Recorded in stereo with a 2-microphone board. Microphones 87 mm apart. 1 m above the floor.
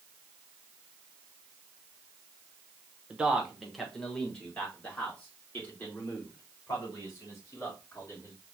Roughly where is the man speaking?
Centre.